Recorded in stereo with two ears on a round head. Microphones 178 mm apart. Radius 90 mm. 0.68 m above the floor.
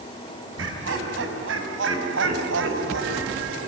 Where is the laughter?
80° right, 6 m; by 3.7 s 70° right (ahead or behind), 3 m.